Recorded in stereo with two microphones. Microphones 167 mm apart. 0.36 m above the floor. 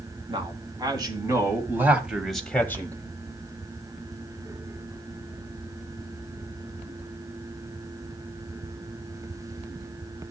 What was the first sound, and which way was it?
A man speaking, 30° right (ahead or behind).